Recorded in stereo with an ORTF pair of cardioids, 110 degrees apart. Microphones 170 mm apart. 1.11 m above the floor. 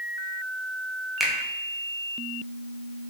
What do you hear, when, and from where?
1.2 s a finger snap: straight ahead, 0.6 m